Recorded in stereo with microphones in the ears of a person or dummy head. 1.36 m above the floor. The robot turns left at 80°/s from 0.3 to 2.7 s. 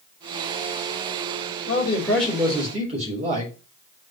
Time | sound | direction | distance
1.7 | a man speaking | 40° left | 3.5 m